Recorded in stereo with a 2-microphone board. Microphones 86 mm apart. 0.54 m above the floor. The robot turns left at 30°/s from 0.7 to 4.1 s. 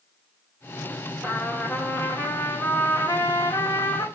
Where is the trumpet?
170° left, 1.7 m; by 4.1 s 85° left, 1.7 m.